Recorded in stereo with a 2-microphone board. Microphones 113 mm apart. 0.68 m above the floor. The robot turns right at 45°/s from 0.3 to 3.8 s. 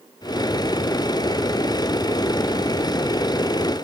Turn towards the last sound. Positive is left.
No sound to turn to.